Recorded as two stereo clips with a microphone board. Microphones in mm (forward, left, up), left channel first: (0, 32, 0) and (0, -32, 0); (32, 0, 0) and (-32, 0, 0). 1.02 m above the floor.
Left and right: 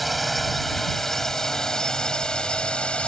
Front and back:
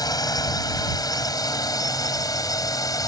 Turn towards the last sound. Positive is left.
turn(degrees=20)